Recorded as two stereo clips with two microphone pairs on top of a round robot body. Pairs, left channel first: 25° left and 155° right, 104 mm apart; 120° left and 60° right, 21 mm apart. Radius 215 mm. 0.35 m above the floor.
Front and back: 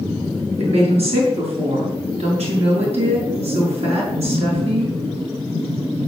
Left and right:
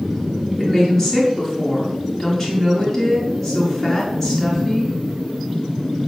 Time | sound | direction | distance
0.6 | a woman speaking | 160° right | 6.5 m